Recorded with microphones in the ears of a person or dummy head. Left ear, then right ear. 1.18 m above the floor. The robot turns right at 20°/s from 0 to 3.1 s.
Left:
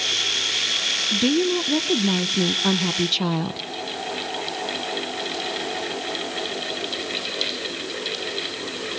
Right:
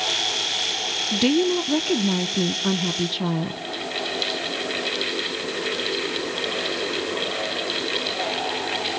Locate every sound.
1.1 s a woman speaking: 20° right, 0.7 m; by 3.6 s 20° left, 0.7 m